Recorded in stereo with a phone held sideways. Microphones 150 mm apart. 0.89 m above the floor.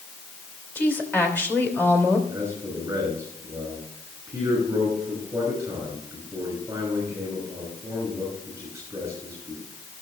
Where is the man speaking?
20° right (ahead or behind), 5.5 m.